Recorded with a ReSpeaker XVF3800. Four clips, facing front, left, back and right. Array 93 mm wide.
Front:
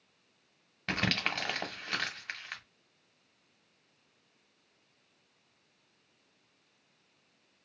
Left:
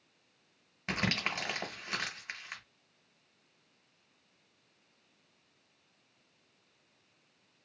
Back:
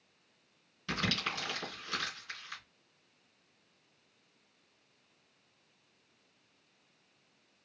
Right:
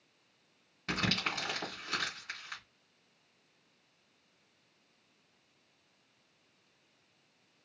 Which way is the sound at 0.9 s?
15° left.